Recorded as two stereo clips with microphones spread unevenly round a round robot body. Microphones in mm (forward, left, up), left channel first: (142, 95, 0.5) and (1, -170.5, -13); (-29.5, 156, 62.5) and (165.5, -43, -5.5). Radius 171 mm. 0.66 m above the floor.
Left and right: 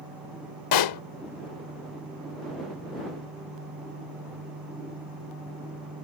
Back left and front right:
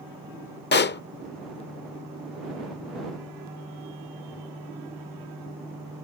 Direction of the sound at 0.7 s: 85° left.